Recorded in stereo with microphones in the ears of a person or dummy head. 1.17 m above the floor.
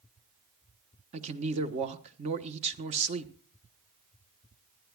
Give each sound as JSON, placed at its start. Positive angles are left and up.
{"t": 1.1, "sound": "a man speaking", "side_deg": -35, "distance_m": 1.1}